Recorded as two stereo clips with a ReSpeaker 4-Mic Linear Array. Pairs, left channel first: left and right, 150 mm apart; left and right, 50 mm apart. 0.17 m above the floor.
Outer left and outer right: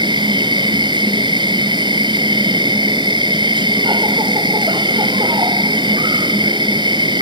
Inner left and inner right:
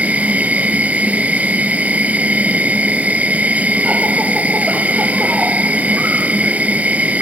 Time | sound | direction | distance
0.0 | an insect | 30° right (ahead or behind) | ?